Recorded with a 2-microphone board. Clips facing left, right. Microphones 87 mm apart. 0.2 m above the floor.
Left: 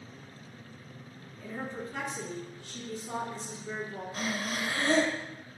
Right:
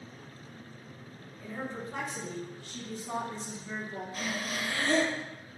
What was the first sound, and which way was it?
A woman speaking, 15° right (ahead or behind).